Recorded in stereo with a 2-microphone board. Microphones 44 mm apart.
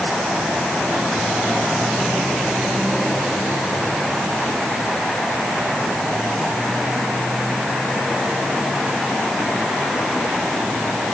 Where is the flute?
No flute in this recording.